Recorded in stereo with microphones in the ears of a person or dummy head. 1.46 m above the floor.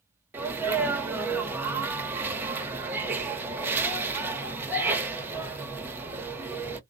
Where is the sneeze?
10° right (ahead or behind), 0.9 m.